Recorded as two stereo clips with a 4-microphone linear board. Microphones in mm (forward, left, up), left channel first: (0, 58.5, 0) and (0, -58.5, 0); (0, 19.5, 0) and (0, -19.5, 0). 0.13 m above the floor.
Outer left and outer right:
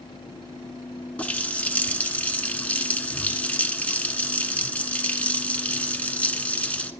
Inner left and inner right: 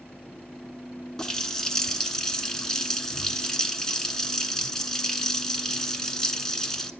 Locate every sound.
1.2 s a running tap: 15° left (ahead or behind), 0.8 m